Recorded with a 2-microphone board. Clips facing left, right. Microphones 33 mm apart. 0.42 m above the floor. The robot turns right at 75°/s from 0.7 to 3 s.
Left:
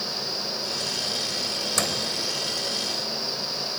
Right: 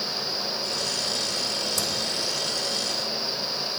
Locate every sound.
1.8 s a microwave: 60° left (ahead or behind), 1.2 m; by 2.1 s 55° left (ahead or behind), 1.2 m